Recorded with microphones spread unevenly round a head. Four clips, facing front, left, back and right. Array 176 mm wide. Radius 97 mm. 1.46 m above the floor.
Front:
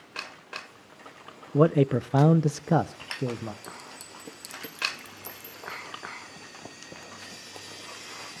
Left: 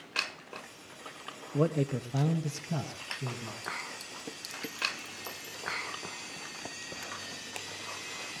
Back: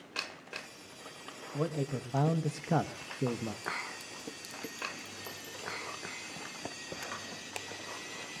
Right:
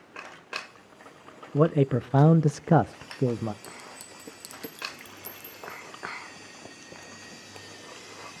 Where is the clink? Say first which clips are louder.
Left 4 dB, back 4 dB; 95° right, 0.7 m.